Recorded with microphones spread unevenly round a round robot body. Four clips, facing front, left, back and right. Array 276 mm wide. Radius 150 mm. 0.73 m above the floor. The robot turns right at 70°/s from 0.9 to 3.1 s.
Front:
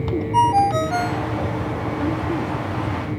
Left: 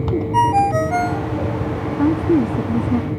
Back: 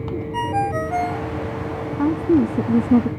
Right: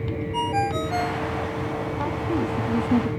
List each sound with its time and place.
0.3 s a ringtone: 50° left; by 1.3 s 80° left
2.0 s a woman speaking: 110° left; by 3.1 s 170° right